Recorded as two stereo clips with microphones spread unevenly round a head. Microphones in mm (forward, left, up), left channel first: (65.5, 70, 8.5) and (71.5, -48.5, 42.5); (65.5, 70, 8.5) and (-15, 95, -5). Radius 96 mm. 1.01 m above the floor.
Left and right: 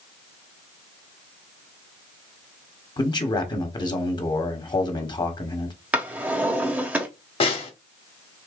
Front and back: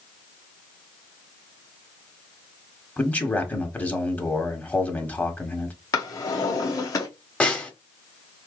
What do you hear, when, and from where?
3.0 s a man speaking: 60° left, 1.3 m
5.9 s a drawer: 30° right, 1.0 m
7.4 s a snare drum: 50° left, 1.2 m